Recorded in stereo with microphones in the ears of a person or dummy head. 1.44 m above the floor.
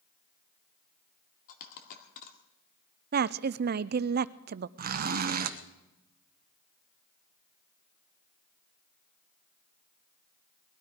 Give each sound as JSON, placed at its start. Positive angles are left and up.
{"t": 1.5, "sound": "a dropped coin", "side_deg": 55, "distance_m": 1.8}
{"t": 3.1, "sound": "a woman speaking", "side_deg": -50, "distance_m": 0.5}
{"t": 4.8, "sound": "a zipper", "side_deg": -50, "distance_m": 0.9}